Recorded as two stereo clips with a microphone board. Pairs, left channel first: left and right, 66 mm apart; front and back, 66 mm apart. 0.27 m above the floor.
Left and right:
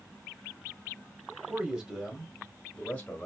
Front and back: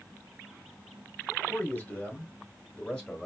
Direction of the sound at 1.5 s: 35° right.